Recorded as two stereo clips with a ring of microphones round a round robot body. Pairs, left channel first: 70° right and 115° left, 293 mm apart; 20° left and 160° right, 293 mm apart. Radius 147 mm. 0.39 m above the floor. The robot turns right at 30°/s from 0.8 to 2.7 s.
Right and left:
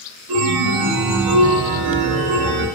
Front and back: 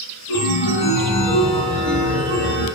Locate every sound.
0.3 s a chime: 80° left, 0.7 m; by 2.7 s 135° left, 0.7 m